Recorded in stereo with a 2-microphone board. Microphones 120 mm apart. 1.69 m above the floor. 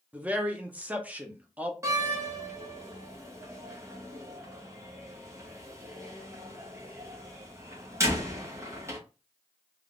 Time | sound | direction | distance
0.1 | a man speaking | 15° right (ahead or behind) | 0.9 m
1.8 | a door slam | 25° right (ahead or behind) | 1.2 m